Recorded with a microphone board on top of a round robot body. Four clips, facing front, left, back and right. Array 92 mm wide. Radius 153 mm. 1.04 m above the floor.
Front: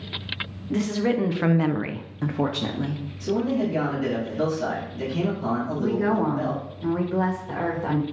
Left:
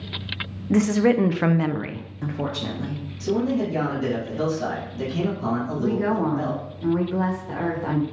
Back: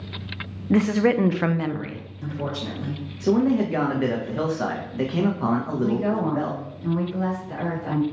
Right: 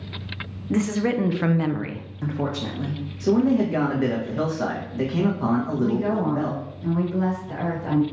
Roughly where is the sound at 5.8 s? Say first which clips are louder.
Even, front 3 dB; ahead left.